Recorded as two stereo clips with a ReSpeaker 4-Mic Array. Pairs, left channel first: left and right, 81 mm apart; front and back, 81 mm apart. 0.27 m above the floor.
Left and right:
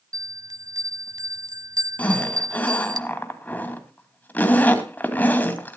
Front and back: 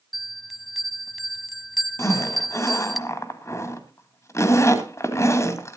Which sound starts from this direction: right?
A bell, at 0.1 s.